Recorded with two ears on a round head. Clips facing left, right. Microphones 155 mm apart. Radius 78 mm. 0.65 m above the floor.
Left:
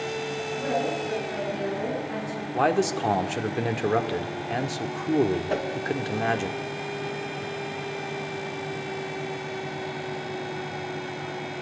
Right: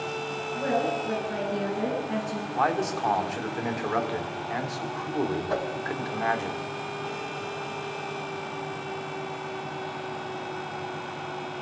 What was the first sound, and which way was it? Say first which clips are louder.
A woman speaking: right 1 dB; 30° right (ahead or behind).